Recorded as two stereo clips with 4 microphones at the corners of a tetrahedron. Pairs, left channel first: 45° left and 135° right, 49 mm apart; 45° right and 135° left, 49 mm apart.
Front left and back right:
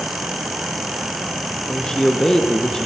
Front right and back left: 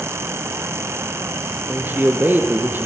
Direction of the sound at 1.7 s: 120° left.